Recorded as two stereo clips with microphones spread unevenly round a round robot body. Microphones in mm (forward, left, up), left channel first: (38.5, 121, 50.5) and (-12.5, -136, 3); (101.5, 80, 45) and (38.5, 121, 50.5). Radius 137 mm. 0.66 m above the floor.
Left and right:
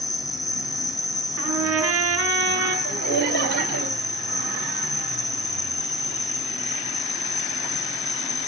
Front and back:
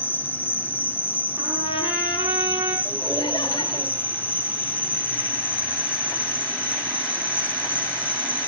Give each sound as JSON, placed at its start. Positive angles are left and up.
{"t": 0.0, "sound": "an insect", "azimuth_deg": -5, "distance_m": 1.0}
{"t": 1.4, "sound": "a trumpet", "azimuth_deg": -140, "distance_m": 6.5}
{"t": 2.9, "sound": "laughter", "azimuth_deg": -105, "distance_m": 4.5}